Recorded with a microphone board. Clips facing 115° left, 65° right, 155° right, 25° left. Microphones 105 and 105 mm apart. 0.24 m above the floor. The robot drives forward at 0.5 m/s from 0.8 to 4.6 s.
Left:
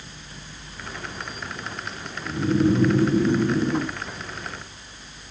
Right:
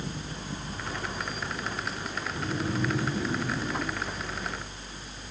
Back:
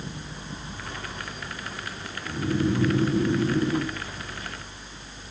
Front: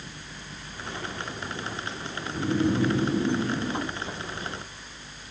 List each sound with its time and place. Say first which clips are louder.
2.2 s snoring: left 13 dB, even; 130° left, 2 m; by 4.0 s 145° left, 2.5 m